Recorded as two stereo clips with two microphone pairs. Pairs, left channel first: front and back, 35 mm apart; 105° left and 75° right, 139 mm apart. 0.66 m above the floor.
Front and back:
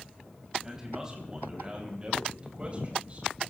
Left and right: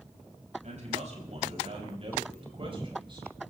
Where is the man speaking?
105° right, 4.5 m; by 3.3 s 130° right, 4 m.